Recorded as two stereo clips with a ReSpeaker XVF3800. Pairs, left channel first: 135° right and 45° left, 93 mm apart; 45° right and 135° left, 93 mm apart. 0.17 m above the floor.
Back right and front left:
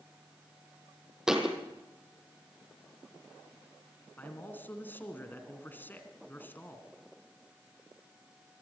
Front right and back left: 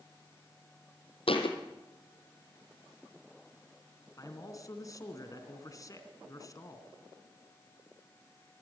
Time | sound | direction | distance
1.3 | a thud | 40° right | 2.5 m
4.2 | a man speaking | 75° right | 2 m